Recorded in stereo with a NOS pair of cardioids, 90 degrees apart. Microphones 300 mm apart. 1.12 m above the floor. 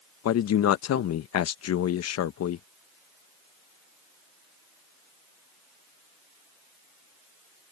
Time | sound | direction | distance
0.2 | a man speaking | 55° left | ?